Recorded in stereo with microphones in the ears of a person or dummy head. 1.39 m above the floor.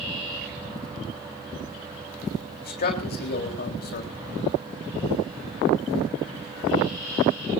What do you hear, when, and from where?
2.6 s a man speaking: 45° left (ahead or behind), 3.5 m